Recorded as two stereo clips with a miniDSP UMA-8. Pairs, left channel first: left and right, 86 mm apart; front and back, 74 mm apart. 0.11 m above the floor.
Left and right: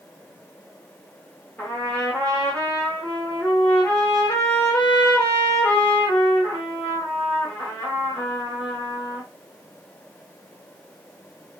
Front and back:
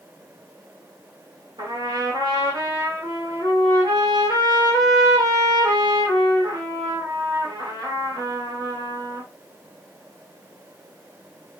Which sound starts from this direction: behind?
A trumpet, at 1.6 s.